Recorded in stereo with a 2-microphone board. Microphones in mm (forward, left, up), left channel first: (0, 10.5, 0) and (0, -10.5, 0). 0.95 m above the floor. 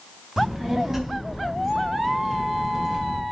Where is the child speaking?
20° right (ahead or behind), 3.5 m; by 3.2 s 10° right (ahead or behind), 5.5 m.